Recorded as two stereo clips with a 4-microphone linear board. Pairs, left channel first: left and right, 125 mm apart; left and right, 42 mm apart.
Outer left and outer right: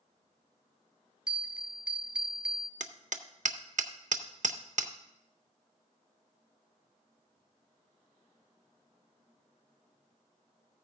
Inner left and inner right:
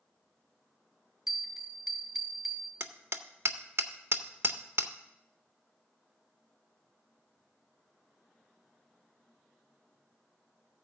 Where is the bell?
5° right (ahead or behind), 0.9 m.